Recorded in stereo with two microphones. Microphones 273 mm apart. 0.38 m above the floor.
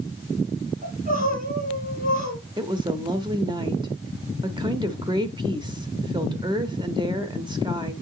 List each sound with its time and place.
0.8 s crying: 30° right (ahead or behind), 3.5 m
2.6 s a woman speaking: 15° right (ahead or behind), 0.8 m